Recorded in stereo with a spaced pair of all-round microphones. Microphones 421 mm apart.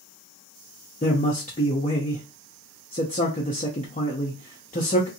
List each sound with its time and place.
1.0 s a man speaking: 20° left (ahead or behind), 0.5 m